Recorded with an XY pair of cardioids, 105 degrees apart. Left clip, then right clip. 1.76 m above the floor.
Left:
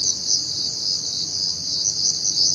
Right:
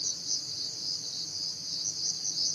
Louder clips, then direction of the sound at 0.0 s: Left 11 dB; 70° left.